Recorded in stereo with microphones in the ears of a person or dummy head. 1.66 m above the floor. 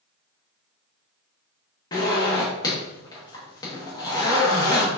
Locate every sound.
1.9 s a zipper: 20° left (ahead or behind), 1.1 m